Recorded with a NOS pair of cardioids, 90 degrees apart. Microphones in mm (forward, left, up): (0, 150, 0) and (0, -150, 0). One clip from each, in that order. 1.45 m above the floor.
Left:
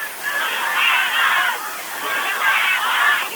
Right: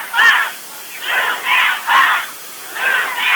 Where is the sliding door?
No sliding door in this recording.